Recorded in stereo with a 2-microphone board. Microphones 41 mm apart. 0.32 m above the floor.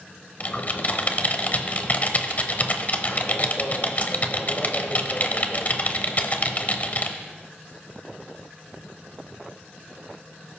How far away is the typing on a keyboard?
About 0.9 m.